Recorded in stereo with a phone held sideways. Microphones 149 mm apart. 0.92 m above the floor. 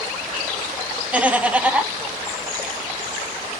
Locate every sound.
1.1 s laughter: 10° right (ahead or behind), 0.9 m